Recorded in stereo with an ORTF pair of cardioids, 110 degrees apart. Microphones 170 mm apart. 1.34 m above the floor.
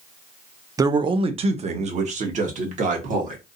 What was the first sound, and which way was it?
A man speaking, 20° right.